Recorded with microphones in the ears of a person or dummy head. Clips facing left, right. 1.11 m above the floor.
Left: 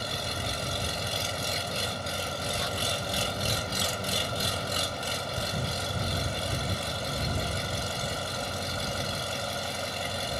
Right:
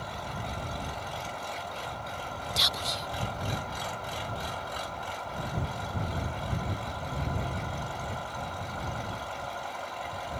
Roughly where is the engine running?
Left.